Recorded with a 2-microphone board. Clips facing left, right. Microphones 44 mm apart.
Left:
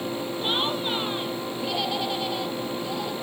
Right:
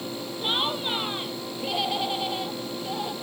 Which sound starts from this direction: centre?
Laughter, at 0.4 s.